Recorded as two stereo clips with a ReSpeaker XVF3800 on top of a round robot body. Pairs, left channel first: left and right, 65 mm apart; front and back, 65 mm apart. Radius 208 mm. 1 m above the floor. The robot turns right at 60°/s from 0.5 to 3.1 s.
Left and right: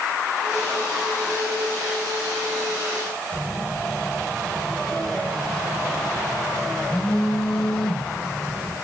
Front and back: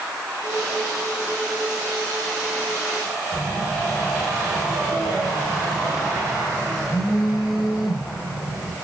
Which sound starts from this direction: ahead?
A phone buzzing, at 3.3 s.